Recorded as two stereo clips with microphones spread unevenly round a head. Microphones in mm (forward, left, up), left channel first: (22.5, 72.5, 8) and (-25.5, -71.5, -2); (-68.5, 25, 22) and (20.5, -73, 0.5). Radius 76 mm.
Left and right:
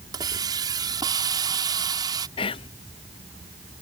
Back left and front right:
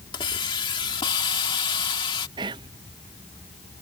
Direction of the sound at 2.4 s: 20° left.